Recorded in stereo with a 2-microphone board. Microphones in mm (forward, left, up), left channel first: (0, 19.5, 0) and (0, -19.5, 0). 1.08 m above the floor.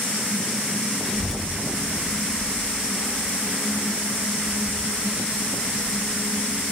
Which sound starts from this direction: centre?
A child speaking, at 1.1 s.